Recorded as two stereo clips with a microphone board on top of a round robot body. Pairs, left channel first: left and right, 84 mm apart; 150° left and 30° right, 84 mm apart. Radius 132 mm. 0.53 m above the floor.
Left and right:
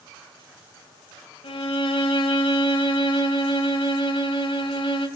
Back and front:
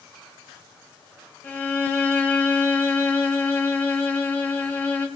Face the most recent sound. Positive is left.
turn(degrees=80)